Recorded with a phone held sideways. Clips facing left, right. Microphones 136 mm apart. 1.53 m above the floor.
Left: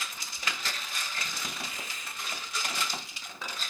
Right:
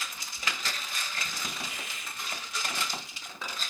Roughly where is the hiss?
Right.